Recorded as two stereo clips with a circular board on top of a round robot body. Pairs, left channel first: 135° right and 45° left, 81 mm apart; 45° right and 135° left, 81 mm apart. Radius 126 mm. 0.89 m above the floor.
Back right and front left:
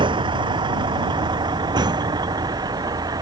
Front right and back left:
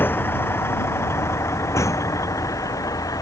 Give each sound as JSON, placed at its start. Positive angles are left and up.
{"t": 0.0, "sound": "a vehicle", "azimuth_deg": 20}